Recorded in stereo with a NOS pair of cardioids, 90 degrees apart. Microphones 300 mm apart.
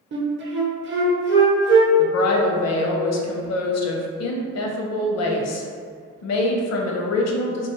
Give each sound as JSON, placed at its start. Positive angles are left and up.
{"t": 0.1, "sound": "a flute", "azimuth_deg": -40, "distance_m": 0.7}
{"t": 2.0, "sound": "a woman speaking", "azimuth_deg": 60, "distance_m": 0.6}